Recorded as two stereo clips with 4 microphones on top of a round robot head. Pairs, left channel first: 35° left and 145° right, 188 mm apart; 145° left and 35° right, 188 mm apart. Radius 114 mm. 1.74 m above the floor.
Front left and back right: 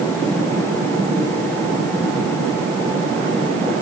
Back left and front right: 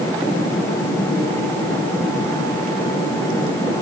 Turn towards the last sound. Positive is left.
No sound to turn to.